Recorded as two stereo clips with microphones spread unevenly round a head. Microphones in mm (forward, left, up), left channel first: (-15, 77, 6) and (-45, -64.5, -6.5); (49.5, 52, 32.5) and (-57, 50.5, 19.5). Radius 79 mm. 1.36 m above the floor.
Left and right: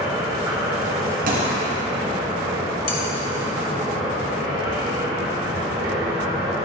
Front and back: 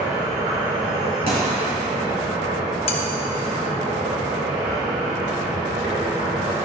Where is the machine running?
170° right, 3.5 m.